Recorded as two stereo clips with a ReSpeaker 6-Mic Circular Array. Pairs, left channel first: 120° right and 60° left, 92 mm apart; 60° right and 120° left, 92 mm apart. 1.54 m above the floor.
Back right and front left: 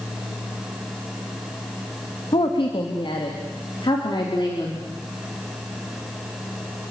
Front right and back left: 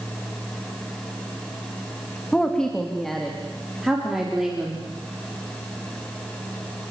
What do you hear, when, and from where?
2.3 s a woman speaking: 140° right, 3 m; by 4.8 s 160° right, 5 m